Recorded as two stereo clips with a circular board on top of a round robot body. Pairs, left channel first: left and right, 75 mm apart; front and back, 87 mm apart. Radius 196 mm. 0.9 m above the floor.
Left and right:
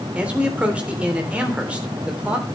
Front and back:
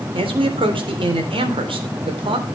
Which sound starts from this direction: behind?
A man speaking, at 0.1 s.